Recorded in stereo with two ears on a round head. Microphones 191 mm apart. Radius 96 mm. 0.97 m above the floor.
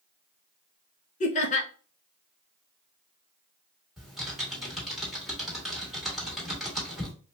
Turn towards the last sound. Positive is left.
turn(degrees=0)  # may be behind; listen again after turning